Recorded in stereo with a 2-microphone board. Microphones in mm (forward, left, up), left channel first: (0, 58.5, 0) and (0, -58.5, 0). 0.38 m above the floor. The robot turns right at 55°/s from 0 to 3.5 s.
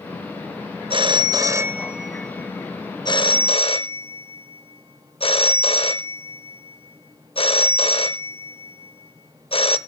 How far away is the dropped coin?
I don't hear a dropped coin.